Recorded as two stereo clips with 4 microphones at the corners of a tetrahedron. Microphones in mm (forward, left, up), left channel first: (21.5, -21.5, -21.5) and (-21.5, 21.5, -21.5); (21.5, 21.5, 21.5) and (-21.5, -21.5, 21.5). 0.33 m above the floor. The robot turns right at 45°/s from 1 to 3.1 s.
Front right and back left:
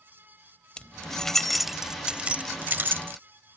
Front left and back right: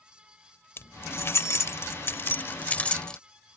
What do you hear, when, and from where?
0.8 s keys jangling: 20° left; by 3.2 s 115° left